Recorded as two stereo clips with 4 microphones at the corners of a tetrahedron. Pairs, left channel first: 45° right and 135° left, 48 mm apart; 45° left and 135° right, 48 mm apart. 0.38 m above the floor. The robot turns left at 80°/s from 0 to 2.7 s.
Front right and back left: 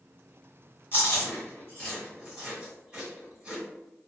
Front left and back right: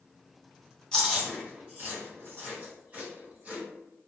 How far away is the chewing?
About 1.8 m.